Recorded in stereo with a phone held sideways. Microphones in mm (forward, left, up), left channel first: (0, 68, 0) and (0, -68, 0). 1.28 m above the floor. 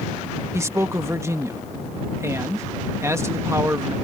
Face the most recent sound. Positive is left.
turn(degrees=-20)  # may be behind; listen again after turning